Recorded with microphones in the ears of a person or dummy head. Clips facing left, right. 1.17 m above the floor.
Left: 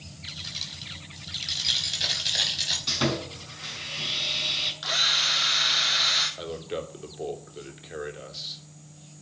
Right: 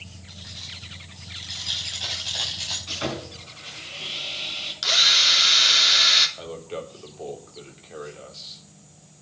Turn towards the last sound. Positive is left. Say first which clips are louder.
# left 2 dB
turn(degrees=20)  # may be behind; listen again after turning